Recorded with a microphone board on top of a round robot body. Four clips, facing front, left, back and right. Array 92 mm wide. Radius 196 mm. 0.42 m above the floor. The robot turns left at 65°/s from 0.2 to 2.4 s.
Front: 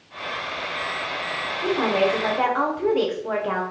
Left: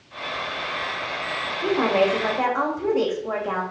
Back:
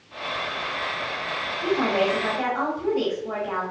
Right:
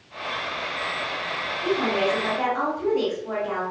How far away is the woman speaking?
About 3 m.